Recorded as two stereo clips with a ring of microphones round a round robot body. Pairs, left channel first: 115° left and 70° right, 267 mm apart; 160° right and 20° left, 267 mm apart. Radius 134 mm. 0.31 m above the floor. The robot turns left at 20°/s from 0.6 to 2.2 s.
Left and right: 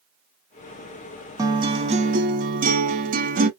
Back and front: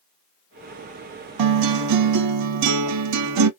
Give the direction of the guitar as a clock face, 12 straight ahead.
12 o'clock.